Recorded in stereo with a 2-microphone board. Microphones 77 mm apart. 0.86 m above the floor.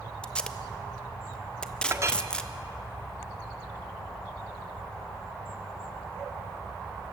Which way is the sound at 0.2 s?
15° left (ahead or behind).